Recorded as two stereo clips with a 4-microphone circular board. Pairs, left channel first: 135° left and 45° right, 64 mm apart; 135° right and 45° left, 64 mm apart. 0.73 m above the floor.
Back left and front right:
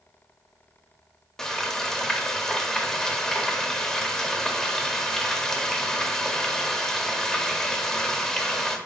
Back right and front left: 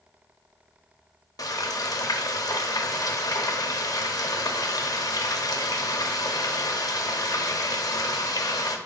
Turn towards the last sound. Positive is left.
turn(degrees=-140)